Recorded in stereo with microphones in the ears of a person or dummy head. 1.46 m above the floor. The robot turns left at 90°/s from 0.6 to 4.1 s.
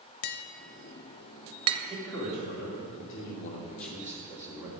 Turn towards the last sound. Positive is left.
turn(degrees=-15)